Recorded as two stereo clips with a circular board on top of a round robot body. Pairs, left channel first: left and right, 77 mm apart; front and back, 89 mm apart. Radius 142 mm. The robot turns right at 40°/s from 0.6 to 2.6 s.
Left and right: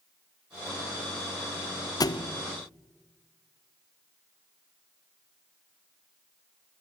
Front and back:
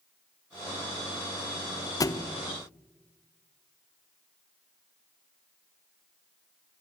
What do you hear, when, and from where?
2.0 s a thud: 50° left, 0.8 m; by 2.3 s 65° left, 0.8 m